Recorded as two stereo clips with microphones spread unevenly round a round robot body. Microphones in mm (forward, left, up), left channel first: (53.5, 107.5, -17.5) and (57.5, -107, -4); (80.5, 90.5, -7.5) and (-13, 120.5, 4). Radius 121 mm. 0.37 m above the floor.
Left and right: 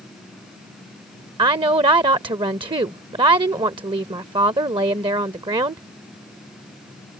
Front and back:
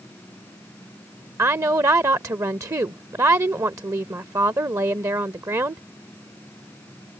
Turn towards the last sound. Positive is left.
turn(degrees=-145)